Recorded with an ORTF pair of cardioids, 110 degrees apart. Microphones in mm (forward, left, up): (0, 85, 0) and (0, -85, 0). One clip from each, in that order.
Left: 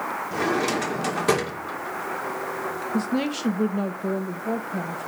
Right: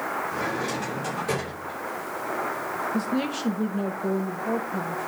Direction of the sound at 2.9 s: 20° left.